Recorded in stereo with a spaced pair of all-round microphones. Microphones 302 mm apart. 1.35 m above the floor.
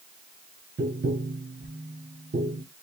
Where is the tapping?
35° right (ahead or behind), 0.7 m.